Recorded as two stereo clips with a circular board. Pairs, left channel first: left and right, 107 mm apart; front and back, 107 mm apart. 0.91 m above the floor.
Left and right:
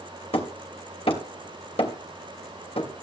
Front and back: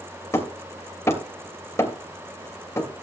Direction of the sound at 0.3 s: 65° left.